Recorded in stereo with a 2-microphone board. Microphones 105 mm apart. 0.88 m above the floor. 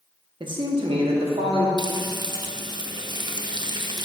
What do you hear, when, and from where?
0.4 s a man speaking: 50° right (ahead or behind), 1.1 m; by 1.7 s 75° right (ahead or behind), 1.5 m
1.8 s frying: 45° right (ahead or behind), 0.5 m